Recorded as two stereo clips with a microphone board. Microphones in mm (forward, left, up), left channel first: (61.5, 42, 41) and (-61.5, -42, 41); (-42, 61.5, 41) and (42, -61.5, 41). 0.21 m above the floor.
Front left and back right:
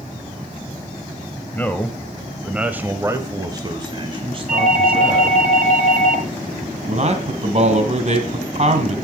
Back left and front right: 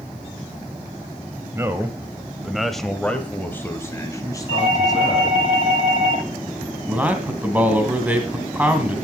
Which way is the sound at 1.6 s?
20° right.